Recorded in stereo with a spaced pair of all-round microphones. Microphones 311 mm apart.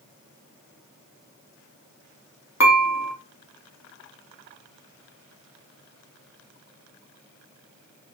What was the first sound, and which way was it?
Dishes clattering, 55° left (ahead or behind).